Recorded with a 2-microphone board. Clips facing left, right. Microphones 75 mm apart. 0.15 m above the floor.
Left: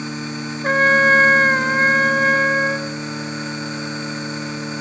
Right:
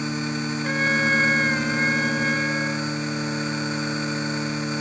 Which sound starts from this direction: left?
A trumpet, at 0.6 s.